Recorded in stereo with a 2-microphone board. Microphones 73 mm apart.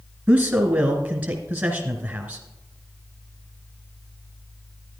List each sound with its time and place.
0.3 s a man speaking: 15° right (ahead or behind), 1.1 m